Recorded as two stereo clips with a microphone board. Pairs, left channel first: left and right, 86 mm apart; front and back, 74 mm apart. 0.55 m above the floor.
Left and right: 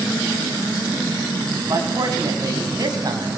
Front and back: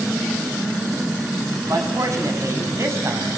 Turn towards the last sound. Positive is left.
turn(degrees=-130)